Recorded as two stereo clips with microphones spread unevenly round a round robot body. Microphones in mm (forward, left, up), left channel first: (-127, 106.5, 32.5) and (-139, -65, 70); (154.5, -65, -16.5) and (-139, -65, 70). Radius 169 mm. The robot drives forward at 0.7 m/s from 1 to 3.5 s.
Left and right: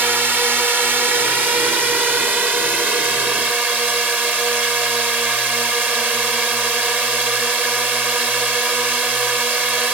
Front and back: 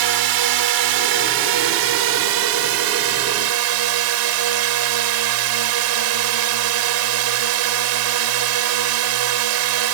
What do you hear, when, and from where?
0.0 s a drone: straight behind